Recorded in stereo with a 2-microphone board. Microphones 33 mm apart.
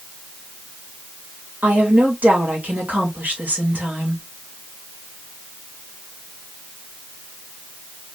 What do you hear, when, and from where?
1.6 s a woman speaking: 65° right (ahead or behind), 3 m